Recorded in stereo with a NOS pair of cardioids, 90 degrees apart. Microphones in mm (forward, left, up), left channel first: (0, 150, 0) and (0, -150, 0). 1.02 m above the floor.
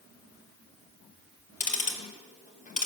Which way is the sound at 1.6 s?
25° left.